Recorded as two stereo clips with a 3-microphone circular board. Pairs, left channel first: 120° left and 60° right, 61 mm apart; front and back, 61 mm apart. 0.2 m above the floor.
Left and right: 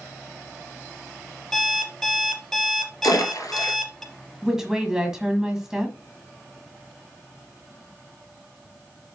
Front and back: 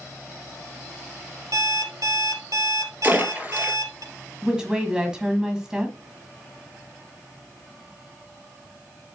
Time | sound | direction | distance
1.5 | an alarm clock | 155° right | 3 m
3.0 | a splash | 115° left | 2.5 m
4.4 | a woman speaking | 125° right | 1.5 m